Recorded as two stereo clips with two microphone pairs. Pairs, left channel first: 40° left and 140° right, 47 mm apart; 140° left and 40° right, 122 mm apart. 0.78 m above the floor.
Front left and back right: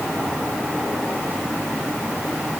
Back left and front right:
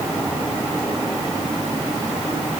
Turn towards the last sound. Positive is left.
No sound to turn to.